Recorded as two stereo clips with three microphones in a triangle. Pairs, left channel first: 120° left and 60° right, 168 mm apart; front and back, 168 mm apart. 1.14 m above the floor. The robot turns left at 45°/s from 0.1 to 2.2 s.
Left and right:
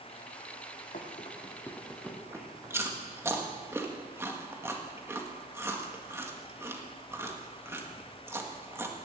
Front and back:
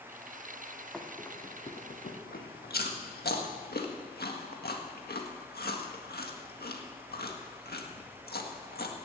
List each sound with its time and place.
0.9 s running footsteps: 90° left, 2.5 m; by 3.0 s 5° left, 2.5 m
2.7 s chewing: 15° left, 1.8 m